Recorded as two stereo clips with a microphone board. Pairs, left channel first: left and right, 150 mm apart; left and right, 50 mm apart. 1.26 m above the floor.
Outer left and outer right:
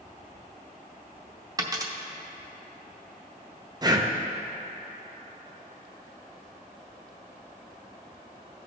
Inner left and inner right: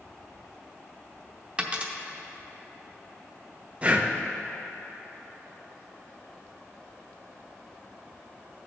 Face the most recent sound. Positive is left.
turn(degrees=-25)  # may be behind; listen again after turning